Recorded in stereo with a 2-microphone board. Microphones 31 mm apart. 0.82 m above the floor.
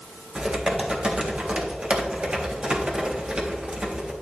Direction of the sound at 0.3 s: 35° right (ahead or behind).